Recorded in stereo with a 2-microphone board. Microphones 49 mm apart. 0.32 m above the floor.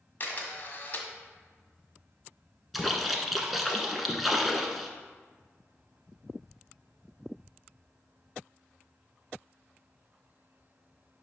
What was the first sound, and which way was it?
A camera shutter, 40° left (ahead or behind).